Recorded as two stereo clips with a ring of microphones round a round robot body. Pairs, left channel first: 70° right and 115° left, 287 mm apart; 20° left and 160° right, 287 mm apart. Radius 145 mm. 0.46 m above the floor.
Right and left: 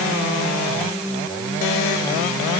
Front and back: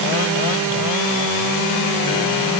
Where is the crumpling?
No crumpling in this recording.